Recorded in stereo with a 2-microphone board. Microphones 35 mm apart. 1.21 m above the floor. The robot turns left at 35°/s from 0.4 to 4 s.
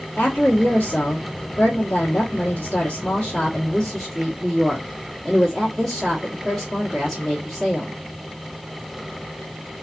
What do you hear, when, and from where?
0.2 s a woman speaking: 120° left, 1.3 m; by 8.0 s 5° right, 1.3 m